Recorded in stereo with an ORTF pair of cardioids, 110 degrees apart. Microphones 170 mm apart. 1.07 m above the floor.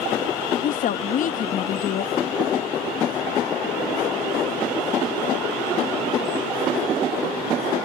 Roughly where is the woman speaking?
Ahead left.